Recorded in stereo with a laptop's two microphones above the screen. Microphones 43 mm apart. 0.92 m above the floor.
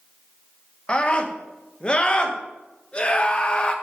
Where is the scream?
25° left (ahead or behind), 1.1 m.